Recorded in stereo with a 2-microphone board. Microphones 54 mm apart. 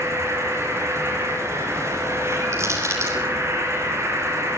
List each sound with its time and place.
0.0 s an insect: 55° right (ahead or behind), 7 m
2.5 s crushing: 60° right (ahead or behind), 8 m